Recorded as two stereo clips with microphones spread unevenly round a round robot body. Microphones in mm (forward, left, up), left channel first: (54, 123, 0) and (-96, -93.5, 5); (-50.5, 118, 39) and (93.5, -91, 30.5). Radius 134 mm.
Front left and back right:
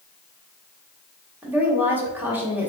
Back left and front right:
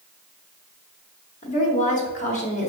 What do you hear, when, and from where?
1.4 s a woman speaking: 155° left, 1.1 m